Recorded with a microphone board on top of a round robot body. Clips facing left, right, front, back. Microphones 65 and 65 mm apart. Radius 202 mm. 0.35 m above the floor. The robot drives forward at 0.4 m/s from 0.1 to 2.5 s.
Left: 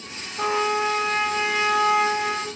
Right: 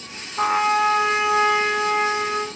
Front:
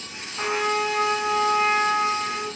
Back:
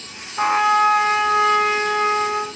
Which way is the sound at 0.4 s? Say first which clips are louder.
Right 4 dB, back 8 dB; 125° right.